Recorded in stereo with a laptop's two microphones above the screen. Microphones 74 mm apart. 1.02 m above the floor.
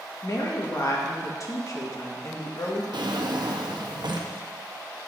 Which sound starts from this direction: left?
A woman speaking, at 0.2 s.